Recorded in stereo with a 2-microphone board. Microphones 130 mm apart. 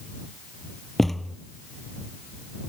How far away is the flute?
I don't hear a flute.